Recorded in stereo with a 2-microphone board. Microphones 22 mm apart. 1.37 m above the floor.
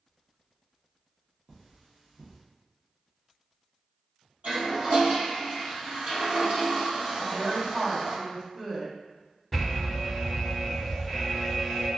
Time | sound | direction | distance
1.5 | cutlery clinking | 40° right (ahead or behind) | 1.1 m
4.4 | a toilet flushing | 60° right (ahead or behind) | 1.5 m
7.2 | a woman speaking | 50° right (ahead or behind) | 1.5 m
9.5 | an alarm | centre (ahead or behind) | 1.5 m